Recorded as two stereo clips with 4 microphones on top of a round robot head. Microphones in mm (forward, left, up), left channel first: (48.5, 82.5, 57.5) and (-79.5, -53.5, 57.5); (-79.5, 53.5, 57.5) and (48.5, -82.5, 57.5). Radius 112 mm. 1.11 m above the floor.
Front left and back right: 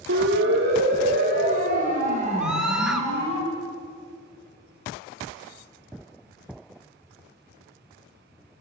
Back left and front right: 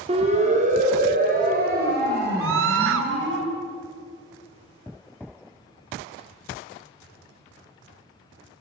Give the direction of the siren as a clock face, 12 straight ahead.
4 o'clock.